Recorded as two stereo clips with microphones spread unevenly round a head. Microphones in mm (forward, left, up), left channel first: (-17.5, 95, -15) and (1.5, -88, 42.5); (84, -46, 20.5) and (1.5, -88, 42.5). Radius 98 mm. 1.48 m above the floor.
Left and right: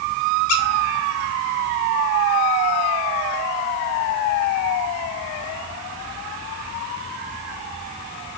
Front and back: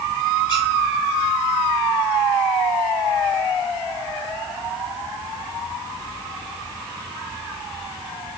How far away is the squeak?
About 1.1 m.